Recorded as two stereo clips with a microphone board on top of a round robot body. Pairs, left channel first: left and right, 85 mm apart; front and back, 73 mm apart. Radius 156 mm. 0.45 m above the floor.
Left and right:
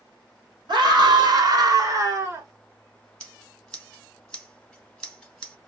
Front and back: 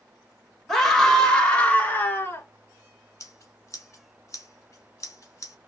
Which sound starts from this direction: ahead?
Scissors, at 3.2 s.